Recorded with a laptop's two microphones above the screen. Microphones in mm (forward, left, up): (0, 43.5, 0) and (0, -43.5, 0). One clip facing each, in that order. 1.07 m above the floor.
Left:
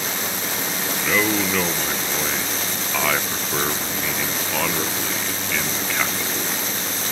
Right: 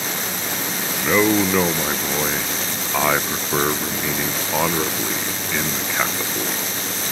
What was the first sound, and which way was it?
A man speaking, 20° right (ahead or behind).